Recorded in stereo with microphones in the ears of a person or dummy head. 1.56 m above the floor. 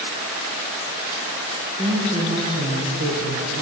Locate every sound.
1.8 s a woman speaking: 20° right (ahead or behind), 2.5 m; by 3.6 s 80° right, 1.9 m